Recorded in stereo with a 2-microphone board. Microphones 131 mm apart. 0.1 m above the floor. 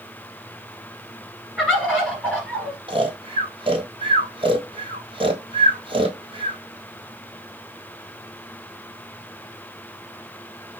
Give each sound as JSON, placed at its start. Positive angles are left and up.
{"t": 1.6, "sound": "a bird", "side_deg": 0, "distance_m": 1.8}
{"t": 2.9, "sound": "snoring", "side_deg": -40, "distance_m": 1.1}